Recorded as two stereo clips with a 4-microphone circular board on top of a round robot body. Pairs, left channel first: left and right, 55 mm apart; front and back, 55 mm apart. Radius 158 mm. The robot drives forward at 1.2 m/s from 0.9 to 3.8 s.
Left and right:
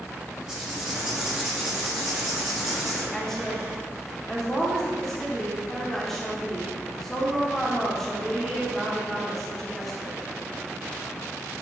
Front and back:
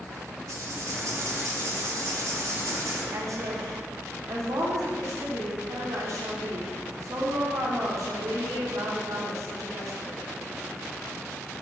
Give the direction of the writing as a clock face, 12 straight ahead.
6 o'clock.